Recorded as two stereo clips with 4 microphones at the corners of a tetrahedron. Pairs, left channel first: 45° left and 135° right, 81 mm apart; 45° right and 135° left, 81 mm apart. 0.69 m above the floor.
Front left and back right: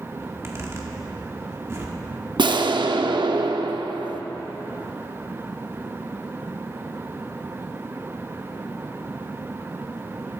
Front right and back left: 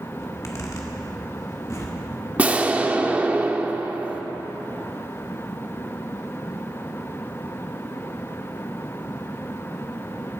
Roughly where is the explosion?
Behind right.